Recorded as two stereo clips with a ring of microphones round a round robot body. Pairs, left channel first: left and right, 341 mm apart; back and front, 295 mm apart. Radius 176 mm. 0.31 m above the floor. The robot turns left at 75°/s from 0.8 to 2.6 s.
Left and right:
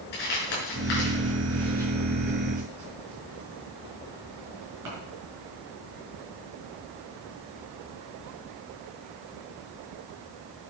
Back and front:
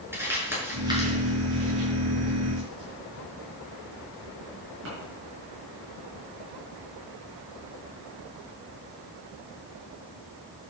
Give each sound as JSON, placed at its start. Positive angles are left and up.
{"t": 0.1, "sound": "crumpling", "azimuth_deg": 85, "distance_m": 5.5}